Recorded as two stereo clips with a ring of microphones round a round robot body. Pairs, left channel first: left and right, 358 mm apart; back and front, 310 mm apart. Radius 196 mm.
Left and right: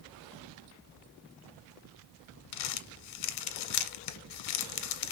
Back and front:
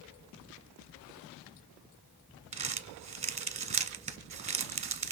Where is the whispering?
I don't hear whispering.